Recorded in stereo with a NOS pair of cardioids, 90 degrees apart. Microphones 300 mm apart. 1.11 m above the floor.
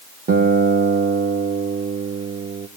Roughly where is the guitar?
Ahead right.